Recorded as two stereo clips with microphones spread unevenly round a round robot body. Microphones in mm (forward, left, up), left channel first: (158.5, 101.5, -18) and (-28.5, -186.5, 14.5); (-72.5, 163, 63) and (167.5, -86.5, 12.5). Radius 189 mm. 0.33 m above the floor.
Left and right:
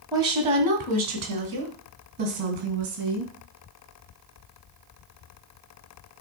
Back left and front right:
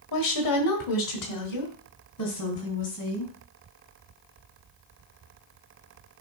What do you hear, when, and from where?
0.1 s a woman speaking: 155° left, 1.7 m; by 3.3 s 170° right, 3.5 m